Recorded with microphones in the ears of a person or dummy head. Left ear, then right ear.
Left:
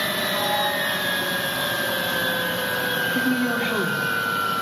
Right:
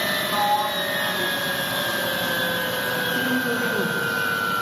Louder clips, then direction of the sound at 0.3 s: Right 2 dB; 70° right (ahead or behind).